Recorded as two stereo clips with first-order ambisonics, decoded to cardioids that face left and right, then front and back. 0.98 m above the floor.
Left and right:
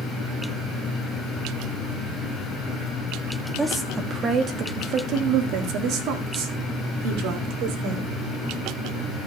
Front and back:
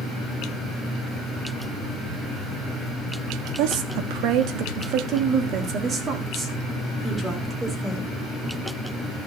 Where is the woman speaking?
170° right, 1.4 m; by 8.1 s 100° right, 3 m.